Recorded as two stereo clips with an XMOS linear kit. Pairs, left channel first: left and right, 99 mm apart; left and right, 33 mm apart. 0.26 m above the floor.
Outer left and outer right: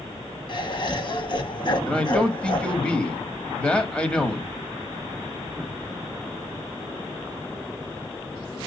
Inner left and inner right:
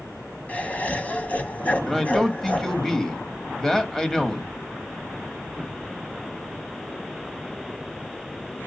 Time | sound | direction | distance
0.5 | laughter | 50° left (ahead or behind) | 1.6 m
1.9 | a man speaking | 15° left (ahead or behind) | 1.2 m